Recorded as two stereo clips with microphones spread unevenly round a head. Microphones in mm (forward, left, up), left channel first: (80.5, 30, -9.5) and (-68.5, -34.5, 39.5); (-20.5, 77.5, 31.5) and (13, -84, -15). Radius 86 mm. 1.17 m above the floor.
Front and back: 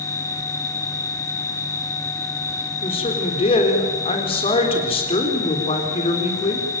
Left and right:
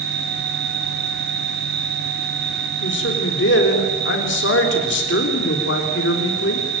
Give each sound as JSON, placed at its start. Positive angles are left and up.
{"t": 0.0, "sound": "an insect", "azimuth_deg": -55, "distance_m": 3.0}
{"t": 2.8, "sound": "a man speaking", "azimuth_deg": 80, "distance_m": 3.5}